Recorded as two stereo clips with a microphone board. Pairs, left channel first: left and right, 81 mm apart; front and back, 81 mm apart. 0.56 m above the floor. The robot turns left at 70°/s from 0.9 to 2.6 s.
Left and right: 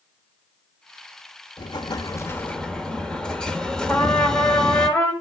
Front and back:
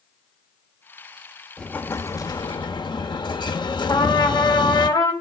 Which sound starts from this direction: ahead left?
A trumpet, at 3.9 s.